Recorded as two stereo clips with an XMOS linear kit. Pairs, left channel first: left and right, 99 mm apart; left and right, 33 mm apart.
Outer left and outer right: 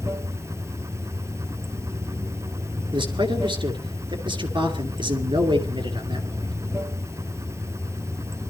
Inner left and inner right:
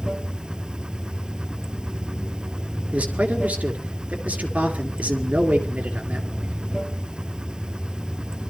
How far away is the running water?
About 0.9 m.